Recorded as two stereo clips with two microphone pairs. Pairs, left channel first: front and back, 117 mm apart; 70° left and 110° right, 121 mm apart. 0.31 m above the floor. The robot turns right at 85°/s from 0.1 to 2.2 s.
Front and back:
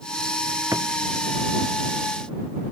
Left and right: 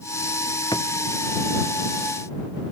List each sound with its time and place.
0.7 s a drawer: 120° left; by 0.9 s 135° left